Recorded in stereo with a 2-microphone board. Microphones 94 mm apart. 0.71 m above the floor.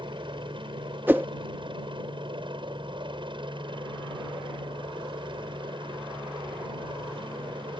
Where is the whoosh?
20° right (ahead or behind).